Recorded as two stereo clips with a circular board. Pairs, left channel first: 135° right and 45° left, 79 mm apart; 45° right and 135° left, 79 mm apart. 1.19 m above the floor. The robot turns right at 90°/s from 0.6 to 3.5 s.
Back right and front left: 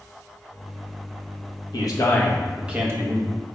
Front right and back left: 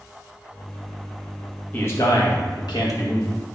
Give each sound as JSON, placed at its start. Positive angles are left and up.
{"t": 1.7, "sound": "a man speaking", "azimuth_deg": -115, "distance_m": 1.0}